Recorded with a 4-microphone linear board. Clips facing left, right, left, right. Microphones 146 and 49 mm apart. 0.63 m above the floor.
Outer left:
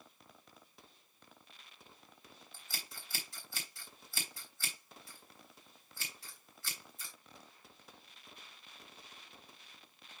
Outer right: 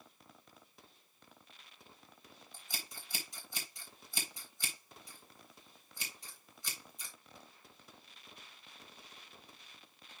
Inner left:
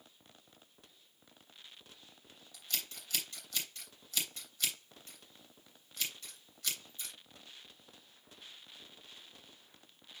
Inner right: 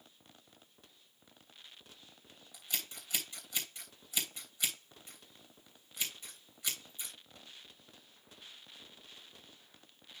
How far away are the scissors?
About 3 m.